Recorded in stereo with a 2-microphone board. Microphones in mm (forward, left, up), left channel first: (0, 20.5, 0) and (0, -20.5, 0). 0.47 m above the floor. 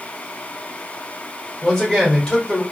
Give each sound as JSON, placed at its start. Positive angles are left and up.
{"t": 1.6, "sound": "a man speaking", "side_deg": 20, "distance_m": 1.4}